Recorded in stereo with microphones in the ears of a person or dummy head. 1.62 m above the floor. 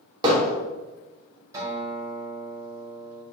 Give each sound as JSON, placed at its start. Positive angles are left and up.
{"t": 0.2, "sound": "hammering", "side_deg": -30, "distance_m": 3.0}
{"t": 1.5, "sound": "a guitar", "side_deg": -20, "distance_m": 4.0}